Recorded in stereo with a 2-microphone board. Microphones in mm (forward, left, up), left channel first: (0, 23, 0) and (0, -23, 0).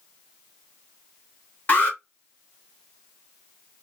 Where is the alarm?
35° left (ahead or behind), 1.5 m.